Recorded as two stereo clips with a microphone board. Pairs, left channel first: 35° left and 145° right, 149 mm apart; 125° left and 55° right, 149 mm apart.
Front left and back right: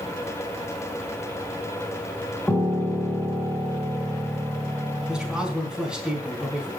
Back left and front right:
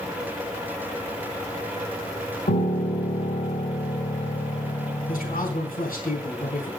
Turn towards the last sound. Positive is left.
turn(degrees=130)